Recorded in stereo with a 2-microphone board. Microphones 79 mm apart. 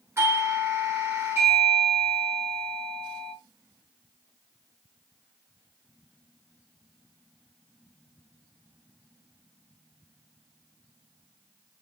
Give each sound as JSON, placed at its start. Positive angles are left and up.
{"t": 0.2, "sound": "a doorbell", "side_deg": -35, "distance_m": 1.8}